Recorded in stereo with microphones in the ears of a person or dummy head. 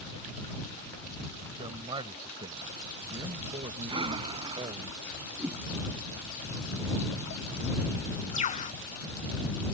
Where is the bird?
40° left (ahead or behind).